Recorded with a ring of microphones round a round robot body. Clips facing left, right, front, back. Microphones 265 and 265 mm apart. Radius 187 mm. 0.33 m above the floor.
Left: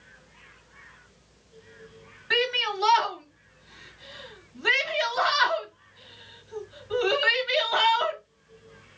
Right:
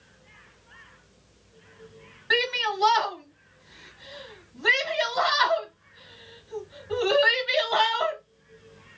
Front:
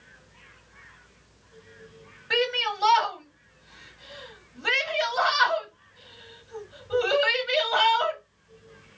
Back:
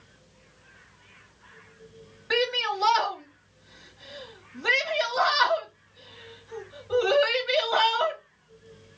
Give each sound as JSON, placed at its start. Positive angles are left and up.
{"t": 2.3, "sound": "a shout", "azimuth_deg": -130, "distance_m": 3.5}